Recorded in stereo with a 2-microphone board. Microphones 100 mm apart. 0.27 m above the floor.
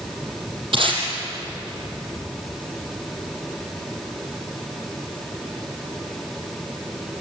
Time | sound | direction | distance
0.7 | tape being pulled | 65° right (ahead or behind) | 5 m